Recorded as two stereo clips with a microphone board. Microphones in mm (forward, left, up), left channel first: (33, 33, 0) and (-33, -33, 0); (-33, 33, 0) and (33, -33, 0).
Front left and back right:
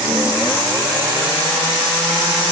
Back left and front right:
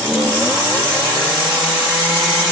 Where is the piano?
I don't hear a piano.